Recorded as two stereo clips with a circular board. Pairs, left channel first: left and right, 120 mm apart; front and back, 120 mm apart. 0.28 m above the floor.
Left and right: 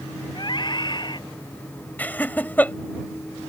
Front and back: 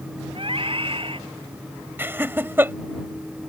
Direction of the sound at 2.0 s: 140° left.